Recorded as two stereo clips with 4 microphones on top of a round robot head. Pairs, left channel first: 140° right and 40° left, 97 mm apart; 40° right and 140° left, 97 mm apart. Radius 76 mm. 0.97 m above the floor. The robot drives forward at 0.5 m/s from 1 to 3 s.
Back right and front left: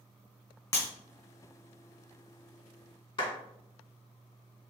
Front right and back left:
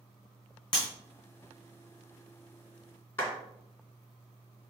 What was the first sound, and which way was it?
Breaking glass, 85° right.